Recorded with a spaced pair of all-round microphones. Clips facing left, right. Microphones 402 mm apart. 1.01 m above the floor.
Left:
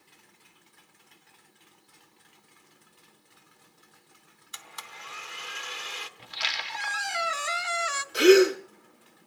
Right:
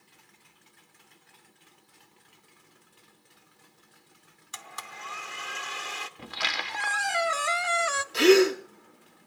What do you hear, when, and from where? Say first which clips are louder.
4.5 s a blender: right 4 dB; 65° right (ahead or behind), 1.1 m
6.2 s a squeak: right 6 dB; 65° right (ahead or behind), 0.7 m
8.1 s a gasp: left 2 dB; 5° right (ahead or behind), 1.3 m